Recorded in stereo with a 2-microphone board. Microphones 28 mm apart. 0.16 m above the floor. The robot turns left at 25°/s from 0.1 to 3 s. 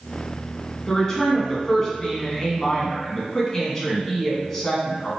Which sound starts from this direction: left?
A woman speaking, at 0.9 s.